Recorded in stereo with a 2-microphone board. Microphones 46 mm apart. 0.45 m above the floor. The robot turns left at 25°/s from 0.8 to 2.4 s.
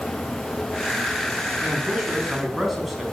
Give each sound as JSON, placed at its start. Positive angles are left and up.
{"t": 1.6, "sound": "a man speaking", "side_deg": -20, "distance_m": 4.5}